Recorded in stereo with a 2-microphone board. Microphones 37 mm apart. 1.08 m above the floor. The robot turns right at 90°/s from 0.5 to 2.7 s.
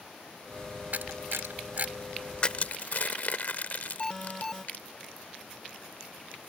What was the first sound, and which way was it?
A camera shutter, 55° right (ahead or behind).